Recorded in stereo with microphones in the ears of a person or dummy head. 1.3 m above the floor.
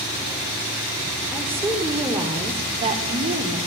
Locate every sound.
1.3 s a woman speaking: 10° right (ahead or behind), 4.5 m; by 3.6 s 50° right (ahead or behind), 4 m